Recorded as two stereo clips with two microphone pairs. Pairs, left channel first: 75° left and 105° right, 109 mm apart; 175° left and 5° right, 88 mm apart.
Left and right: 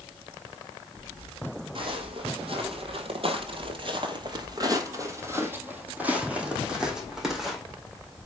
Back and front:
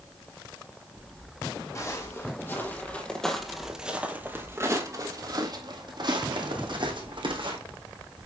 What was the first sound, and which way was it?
Footsteps, 135° right.